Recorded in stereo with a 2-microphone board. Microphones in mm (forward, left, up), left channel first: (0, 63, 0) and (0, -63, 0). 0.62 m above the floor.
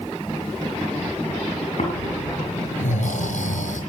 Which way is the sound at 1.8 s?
85° left.